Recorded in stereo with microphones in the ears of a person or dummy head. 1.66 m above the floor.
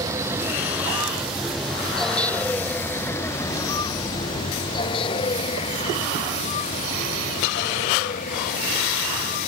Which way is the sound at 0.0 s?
20° right (ahead or behind).